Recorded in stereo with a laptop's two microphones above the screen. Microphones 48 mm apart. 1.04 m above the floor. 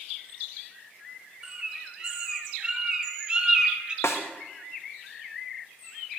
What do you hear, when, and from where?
1.4 s a bird: 20° right (ahead or behind), 1.0 m
4.0 s a snare drum: 75° left (ahead or behind), 1.0 m